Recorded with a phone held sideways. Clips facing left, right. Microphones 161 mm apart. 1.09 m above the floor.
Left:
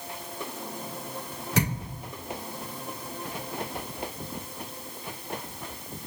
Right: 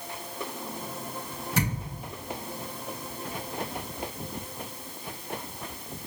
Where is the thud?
80° left, 2 m.